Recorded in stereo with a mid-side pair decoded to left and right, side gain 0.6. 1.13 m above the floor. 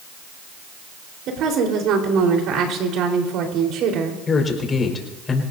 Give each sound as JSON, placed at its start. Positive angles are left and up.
{"t": 1.3, "sound": "a woman speaking", "azimuth_deg": -60, "distance_m": 4.5}
{"t": 4.3, "sound": "a man speaking", "azimuth_deg": 30, "distance_m": 5.0}